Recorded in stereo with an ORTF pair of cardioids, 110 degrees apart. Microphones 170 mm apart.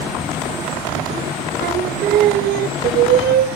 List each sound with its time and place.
1.6 s singing: 70° right, 1.3 m